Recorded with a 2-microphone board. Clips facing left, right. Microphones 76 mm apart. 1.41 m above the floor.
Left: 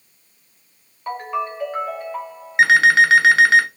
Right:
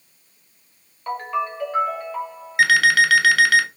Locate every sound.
1.1 s a ringtone: 10° left (ahead or behind), 2 m
2.6 s an alarm clock: 30° left (ahead or behind), 0.6 m